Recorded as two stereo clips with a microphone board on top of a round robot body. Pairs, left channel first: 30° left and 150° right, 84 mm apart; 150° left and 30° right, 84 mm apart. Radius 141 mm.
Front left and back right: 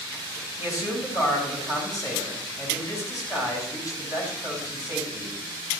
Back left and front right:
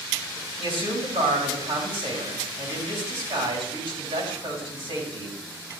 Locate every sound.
0.6 s a man speaking: 20° right, 5 m